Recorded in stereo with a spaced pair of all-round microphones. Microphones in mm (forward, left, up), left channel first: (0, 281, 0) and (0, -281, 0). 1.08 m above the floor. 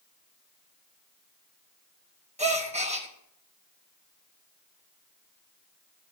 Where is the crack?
No crack in this recording.